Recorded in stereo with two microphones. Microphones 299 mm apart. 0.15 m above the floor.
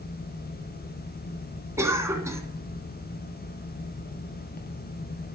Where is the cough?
10° right (ahead or behind), 1.5 m.